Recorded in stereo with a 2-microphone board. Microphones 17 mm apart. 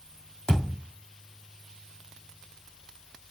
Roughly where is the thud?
Left.